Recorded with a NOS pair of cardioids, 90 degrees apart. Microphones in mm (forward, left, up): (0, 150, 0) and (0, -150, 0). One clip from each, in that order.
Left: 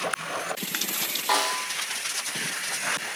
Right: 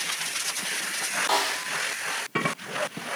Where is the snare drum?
5° left, 0.8 m.